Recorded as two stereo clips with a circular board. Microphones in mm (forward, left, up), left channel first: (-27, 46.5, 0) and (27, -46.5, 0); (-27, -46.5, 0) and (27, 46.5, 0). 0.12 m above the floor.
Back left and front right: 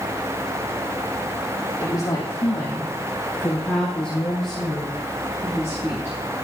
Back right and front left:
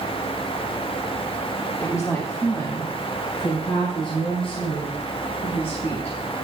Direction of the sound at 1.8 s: 175° left.